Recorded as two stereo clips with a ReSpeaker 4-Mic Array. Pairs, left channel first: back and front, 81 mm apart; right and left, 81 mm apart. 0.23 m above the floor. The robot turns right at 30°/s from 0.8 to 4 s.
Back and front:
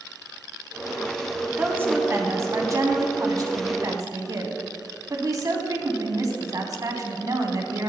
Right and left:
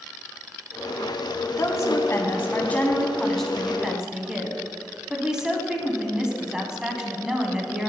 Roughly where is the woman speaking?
Ahead right.